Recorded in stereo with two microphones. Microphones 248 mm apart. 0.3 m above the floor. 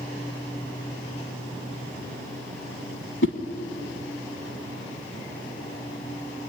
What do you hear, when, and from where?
3.2 s a whoosh: 55° left (ahead or behind), 1.4 m